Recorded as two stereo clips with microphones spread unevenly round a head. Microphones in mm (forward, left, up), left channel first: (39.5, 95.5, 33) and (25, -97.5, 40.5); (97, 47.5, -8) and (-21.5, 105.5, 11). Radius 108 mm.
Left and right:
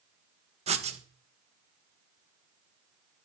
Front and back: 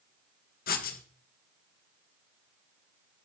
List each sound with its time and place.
0.7 s writing: 35° right, 1.8 m